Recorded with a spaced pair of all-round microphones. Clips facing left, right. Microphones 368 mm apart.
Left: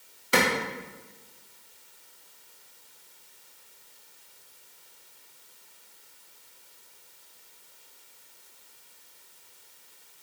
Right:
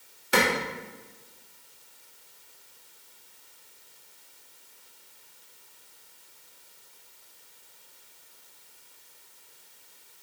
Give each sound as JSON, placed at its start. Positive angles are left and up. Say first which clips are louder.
{"t": 0.3, "sound": "a clap", "louder": "even", "side_deg": 5, "distance_m": 2.5}